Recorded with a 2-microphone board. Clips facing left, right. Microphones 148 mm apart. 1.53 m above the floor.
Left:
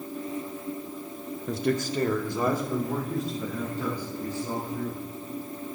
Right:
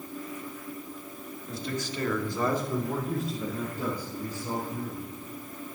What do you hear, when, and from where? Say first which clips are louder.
1.5 s a man speaking: left 8 dB; 70° left (ahead or behind), 0.7 m; by 5.1 s 15° right (ahead or behind), 3 m